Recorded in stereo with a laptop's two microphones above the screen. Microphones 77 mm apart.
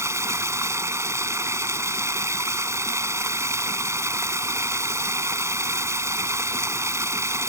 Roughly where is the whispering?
No whispering in this recording.